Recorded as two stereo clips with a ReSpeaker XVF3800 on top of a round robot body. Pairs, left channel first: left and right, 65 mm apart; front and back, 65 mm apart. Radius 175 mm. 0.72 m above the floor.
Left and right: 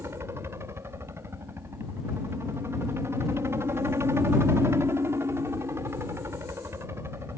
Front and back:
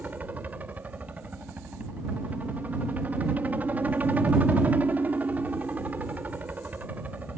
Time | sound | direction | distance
0.0 | a helicopter | 120° right | ?